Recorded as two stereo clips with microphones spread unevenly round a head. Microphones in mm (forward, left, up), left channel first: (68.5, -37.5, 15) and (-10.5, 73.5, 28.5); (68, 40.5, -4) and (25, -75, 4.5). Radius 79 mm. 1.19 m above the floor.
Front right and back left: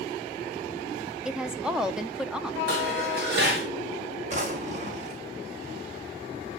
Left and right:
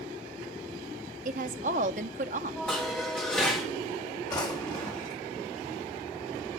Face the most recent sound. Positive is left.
turn(degrees=135)